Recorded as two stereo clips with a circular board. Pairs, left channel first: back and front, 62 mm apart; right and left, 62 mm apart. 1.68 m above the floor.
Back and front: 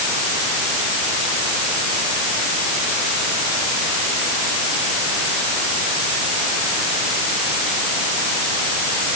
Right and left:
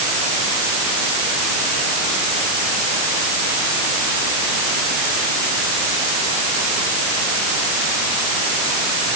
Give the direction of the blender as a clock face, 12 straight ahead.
I don't hear a blender.